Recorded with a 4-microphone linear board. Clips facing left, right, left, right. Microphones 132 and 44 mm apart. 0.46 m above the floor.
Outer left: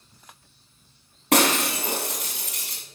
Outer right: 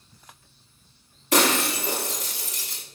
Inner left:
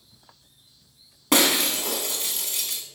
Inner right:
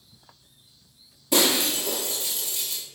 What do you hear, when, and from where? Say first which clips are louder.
1.3 s breaking glass: outer left 1 dB, inner left 1 dB; 70° left (ahead or behind), 1.2 m